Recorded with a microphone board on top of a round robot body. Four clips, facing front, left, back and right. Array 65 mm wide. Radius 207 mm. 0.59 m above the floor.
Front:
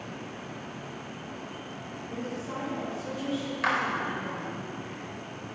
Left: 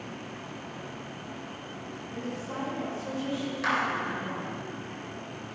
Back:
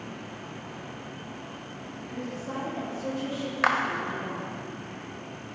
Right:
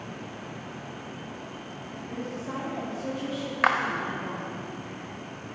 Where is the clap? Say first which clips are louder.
Right 5 dB, back 3 dB; 120° right, 0.9 m.